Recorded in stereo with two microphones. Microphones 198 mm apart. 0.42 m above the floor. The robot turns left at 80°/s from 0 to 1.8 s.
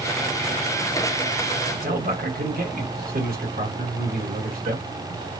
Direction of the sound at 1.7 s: 55° right (ahead or behind).